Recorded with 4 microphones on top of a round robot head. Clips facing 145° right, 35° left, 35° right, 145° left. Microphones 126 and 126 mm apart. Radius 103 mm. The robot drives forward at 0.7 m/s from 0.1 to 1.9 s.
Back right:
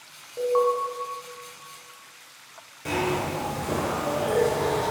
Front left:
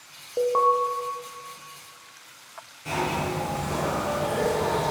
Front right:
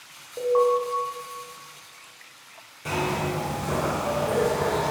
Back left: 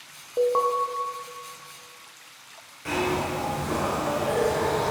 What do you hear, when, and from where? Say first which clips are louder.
0.4 s an alarm: even, front right 2 dB; 85° left, 0.8 m; by 0.7 s 100° left, 0.8 m
2.9 s a zipper: back right 1 dB, back left 1 dB; 105° right, 2.0 m